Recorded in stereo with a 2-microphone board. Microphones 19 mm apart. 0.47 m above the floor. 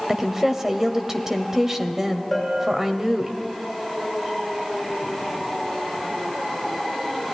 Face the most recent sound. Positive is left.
turn(degrees=-15)  # may be behind; listen again after turning